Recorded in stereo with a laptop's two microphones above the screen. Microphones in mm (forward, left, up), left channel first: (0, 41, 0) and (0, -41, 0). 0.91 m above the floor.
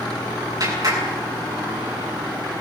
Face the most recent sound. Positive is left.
turn(degrees=-50)  # may be behind; listen again after turning